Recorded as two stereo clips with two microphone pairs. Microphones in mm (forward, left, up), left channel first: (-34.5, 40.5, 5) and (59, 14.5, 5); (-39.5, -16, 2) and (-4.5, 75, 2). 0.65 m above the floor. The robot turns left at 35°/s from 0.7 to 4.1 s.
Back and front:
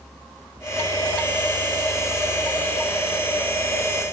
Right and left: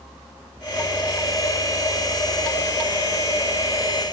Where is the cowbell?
I don't hear a cowbell.